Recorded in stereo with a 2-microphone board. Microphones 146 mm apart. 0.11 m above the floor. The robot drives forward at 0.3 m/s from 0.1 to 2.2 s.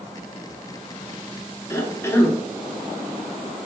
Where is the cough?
15° left (ahead or behind), 1.3 m.